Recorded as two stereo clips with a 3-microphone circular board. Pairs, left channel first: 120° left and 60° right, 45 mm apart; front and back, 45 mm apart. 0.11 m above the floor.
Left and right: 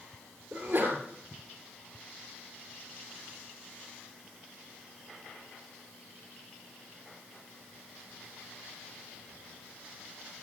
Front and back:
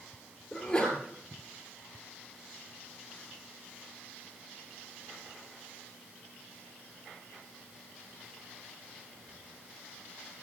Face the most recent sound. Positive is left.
turn(degrees=-60)